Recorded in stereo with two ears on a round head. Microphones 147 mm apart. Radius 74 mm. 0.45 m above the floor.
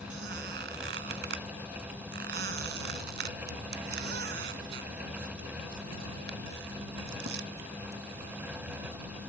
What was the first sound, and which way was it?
A squeak, 70° right (ahead or behind).